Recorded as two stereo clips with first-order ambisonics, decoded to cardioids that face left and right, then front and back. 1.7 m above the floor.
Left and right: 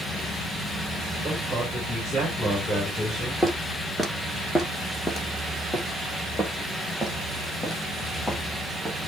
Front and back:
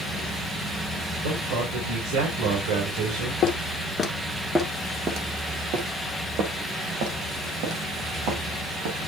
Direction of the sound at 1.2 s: 175° left.